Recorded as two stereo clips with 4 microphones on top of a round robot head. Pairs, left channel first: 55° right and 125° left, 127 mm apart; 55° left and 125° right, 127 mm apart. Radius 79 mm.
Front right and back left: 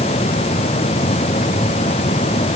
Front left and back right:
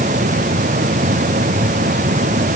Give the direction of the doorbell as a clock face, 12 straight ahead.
I don't hear a doorbell.